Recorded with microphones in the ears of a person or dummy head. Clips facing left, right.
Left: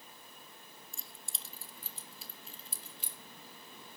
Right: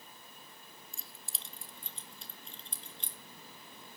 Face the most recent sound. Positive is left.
turn(degrees=10)  # may be behind; listen again after turning